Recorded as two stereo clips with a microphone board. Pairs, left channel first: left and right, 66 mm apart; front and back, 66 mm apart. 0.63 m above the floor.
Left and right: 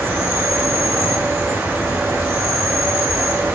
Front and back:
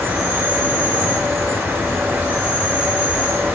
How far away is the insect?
About 0.8 m.